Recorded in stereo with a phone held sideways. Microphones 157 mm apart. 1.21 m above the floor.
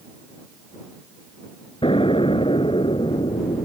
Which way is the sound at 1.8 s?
35° left (ahead or behind).